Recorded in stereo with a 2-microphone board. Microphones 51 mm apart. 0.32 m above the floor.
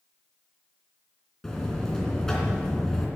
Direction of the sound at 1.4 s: 10° left (ahead or behind).